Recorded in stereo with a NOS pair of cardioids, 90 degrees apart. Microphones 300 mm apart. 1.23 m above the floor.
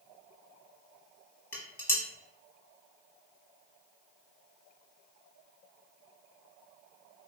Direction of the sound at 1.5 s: 10° left.